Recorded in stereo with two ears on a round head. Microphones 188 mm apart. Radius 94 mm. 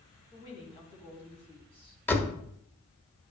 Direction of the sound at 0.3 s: 25° left (ahead or behind).